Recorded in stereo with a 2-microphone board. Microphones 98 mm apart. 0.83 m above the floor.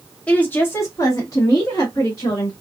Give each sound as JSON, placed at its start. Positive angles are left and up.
{"t": 0.3, "sound": "a woman speaking", "side_deg": 10, "distance_m": 1.0}